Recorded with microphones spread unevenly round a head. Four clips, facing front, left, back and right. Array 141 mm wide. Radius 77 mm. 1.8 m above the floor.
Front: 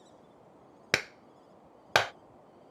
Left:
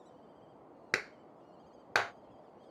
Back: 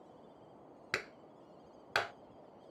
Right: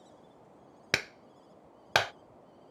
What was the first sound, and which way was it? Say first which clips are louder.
A clap: right 2 dB, front 8 dB; 20° right.